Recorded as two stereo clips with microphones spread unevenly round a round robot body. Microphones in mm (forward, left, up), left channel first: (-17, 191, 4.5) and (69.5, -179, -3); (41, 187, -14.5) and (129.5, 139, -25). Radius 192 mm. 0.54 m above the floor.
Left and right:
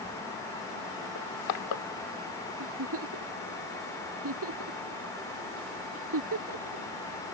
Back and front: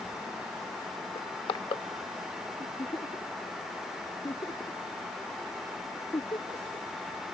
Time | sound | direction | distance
1.1 | crushing | 125° left | ?
2.6 | a giggle | 135° right | ?